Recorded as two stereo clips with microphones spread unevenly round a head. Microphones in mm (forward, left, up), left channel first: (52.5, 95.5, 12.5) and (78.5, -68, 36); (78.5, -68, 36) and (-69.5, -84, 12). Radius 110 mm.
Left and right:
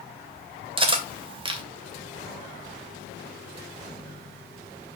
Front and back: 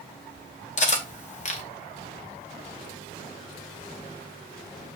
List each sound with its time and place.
0.8 s cutlery clinking: 25° right, 2.5 m